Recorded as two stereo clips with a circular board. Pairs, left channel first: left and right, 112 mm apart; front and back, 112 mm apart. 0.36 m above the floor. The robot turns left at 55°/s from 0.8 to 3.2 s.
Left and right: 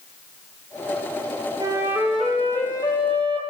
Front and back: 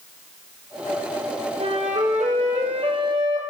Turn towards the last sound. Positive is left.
turn(degrees=125)